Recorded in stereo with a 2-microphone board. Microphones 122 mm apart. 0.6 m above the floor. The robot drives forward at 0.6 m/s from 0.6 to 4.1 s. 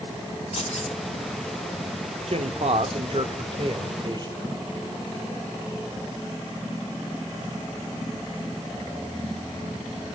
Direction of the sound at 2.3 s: 60° right (ahead or behind).